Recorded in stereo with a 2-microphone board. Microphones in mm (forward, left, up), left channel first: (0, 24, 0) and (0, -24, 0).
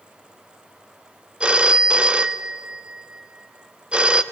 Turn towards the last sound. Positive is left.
turn(degrees=-25)  # may be behind; listen again after turning